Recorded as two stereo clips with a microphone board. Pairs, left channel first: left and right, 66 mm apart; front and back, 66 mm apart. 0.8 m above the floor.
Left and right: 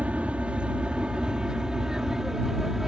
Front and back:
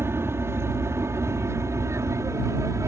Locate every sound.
0.0 s an aircraft: 155° right; by 2.9 s 175° right